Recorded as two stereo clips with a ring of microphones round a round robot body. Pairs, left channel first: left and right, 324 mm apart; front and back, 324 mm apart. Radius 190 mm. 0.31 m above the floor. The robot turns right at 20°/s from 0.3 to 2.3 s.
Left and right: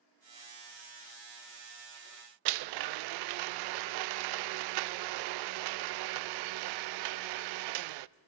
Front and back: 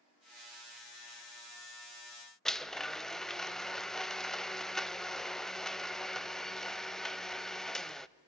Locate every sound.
2.5 s a blender: 90° right, 0.5 m